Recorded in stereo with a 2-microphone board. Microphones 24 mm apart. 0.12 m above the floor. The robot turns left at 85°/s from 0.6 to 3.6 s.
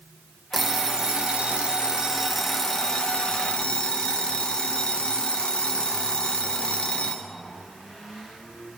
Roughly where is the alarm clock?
Ahead.